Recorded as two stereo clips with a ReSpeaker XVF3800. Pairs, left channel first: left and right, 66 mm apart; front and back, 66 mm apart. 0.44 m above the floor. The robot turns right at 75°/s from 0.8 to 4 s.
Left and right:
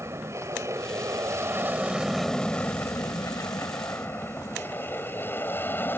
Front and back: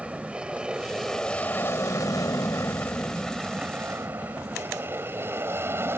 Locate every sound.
0.0 s an aircraft: 110° right; by 6.0 s 140° left